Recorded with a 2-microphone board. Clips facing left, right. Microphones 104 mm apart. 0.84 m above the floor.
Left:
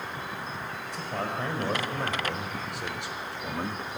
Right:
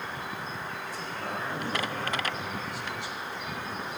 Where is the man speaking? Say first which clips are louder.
Left 6 dB; 80° left, 5 m; by 4.0 s 45° left (ahead or behind), 1.3 m.